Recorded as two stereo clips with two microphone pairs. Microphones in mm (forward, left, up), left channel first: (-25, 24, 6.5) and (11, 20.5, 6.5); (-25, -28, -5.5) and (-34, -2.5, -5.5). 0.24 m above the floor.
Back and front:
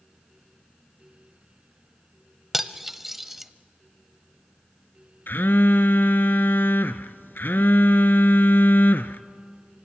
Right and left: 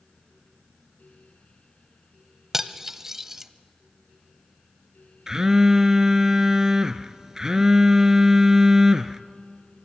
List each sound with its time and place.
2.5 s cutlery clinking: 65° left, 0.7 m
5.3 s a phone buzzing: straight behind, 0.7 m